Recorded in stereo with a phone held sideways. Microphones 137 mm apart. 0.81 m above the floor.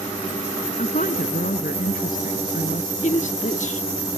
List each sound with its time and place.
0.8 s a woman speaking: 80° left; by 2.9 s 85° left
3.0 s a man speaking: 60° left (ahead or behind)